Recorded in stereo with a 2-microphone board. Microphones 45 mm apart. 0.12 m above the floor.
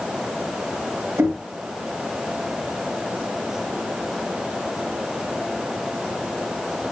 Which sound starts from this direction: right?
Knocking, at 1.2 s.